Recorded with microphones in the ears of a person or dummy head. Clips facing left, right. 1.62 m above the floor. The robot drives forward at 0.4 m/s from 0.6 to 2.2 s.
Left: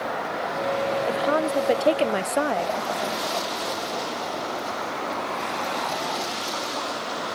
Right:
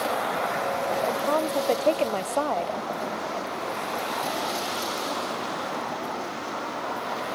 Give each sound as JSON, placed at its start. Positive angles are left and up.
{"t": 1.1, "sound": "a woman speaking", "side_deg": 15}